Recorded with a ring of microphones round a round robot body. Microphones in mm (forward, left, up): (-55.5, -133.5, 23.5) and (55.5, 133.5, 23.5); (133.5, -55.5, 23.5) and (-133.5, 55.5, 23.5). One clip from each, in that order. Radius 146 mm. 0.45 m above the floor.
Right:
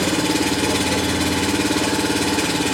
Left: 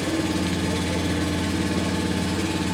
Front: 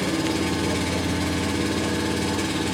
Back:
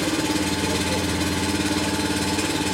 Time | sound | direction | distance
0.0 | an engine running | 140° right | 1.2 m